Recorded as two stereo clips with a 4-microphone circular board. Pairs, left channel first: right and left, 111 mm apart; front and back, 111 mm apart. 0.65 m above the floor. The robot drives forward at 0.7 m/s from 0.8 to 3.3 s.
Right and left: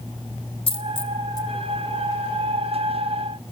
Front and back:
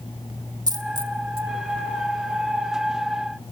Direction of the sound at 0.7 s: 125° right.